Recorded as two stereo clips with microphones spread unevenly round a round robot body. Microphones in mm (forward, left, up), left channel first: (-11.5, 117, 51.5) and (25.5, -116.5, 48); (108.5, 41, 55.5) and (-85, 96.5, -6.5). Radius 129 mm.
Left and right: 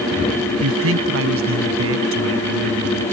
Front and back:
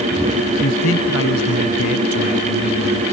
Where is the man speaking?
55° right; by 3.0 s 50° right.